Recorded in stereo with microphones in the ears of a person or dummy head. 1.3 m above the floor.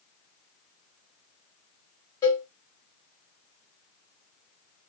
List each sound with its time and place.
2.2 s a cowbell: 10° left (ahead or behind), 0.8 m